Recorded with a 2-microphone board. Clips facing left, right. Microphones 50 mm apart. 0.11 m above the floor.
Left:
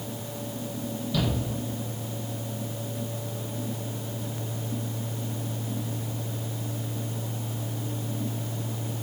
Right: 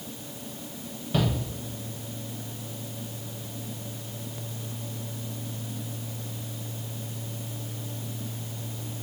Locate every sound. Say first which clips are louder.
1.1 s a shout: right 2 dB; 40° right (ahead or behind), 4 m